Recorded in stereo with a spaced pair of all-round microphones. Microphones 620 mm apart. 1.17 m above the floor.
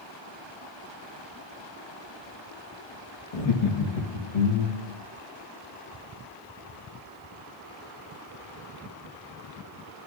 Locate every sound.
3.3 s laughter: 70° left (ahead or behind), 1.1 m; by 4.9 s 65° left (ahead or behind), 2 m